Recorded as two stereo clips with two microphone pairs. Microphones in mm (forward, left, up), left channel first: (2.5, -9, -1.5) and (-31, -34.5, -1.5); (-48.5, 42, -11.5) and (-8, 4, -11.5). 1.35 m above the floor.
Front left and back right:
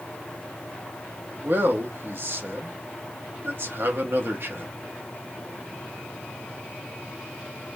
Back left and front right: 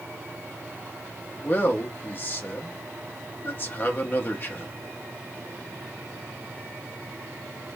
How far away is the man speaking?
About 0.9 m.